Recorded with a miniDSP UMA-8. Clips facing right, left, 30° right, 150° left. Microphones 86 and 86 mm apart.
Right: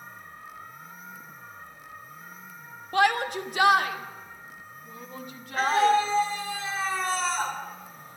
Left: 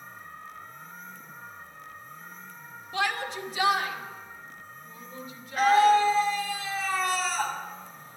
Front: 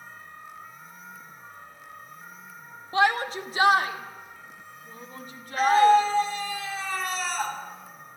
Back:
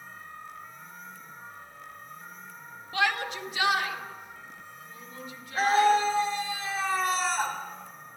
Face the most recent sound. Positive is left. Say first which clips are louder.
# left 2 dB, front 4 dB
turn(degrees=-150)